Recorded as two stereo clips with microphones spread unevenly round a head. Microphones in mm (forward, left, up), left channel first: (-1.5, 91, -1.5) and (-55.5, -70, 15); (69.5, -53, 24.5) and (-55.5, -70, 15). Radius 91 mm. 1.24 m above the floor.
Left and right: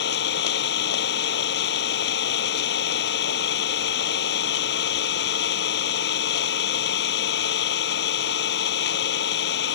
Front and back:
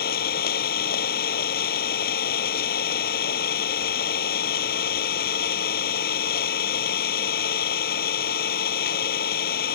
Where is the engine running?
35° left.